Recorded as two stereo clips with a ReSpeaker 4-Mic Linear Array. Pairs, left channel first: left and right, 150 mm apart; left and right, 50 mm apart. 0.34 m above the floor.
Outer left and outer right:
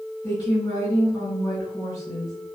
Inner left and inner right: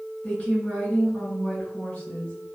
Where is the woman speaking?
25° left (ahead or behind), 2.0 m.